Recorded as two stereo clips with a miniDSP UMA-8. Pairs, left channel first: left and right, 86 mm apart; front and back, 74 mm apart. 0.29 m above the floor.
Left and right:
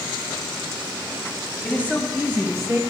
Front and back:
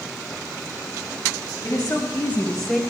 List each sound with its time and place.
1.6 s a woman speaking: 20° right, 1.8 m; by 2.8 s 90° right, 1.3 m